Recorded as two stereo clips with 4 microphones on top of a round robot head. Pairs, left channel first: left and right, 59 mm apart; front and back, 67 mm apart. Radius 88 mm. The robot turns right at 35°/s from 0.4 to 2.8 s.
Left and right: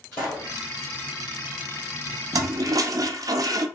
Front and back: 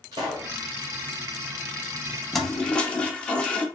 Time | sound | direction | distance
0.1 | a pop | 165° left | 1.3 m
2.3 | a toilet flushing | 90° right | 0.5 m